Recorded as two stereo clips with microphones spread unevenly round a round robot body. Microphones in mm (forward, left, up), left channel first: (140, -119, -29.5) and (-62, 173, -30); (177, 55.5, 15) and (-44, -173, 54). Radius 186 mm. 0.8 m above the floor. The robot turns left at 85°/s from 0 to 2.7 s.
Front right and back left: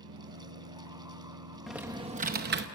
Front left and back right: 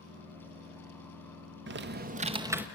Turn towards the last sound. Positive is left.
turn(degrees=125)